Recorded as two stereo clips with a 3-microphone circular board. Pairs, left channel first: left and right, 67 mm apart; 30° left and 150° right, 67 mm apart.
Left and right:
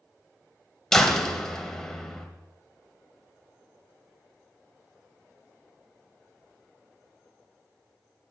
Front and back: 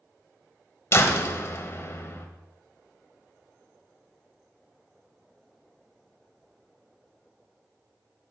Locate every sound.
0.9 s a door slam: 10° left, 1.1 m